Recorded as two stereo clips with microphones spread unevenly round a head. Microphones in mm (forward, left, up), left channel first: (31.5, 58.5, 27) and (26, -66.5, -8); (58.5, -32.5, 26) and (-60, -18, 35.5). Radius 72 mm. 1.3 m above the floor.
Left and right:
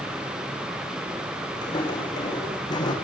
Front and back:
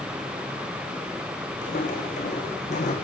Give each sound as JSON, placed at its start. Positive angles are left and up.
{"t": 1.6, "sound": "footsteps", "azimuth_deg": 35, "distance_m": 7.5}